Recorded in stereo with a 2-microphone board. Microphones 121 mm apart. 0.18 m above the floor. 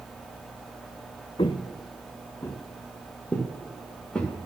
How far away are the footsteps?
About 0.6 m.